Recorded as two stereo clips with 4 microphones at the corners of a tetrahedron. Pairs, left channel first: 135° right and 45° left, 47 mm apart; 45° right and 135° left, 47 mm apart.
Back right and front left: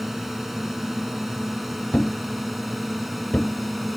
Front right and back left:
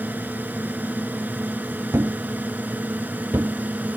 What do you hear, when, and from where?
0.0 s a drone: 125° left; by 4.0 s 130° left
1.9 s a thud: 160° left